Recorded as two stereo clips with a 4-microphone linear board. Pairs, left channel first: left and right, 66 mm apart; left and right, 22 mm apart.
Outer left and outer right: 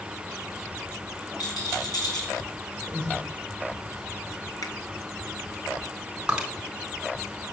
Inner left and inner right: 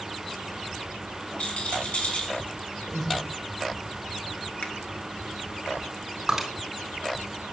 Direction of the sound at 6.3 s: 15° right (ahead or behind).